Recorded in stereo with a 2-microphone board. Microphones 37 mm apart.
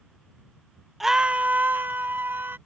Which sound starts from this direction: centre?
A scream, at 1.0 s.